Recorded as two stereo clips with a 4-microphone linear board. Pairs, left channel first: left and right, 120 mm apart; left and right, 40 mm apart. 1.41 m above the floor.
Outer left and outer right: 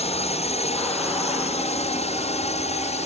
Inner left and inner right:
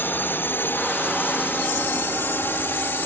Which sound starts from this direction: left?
A drone, at 0.0 s.